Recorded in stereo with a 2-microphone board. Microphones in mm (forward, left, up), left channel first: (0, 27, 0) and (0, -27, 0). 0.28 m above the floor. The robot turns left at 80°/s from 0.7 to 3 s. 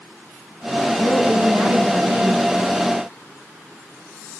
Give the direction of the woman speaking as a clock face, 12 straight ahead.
11 o'clock.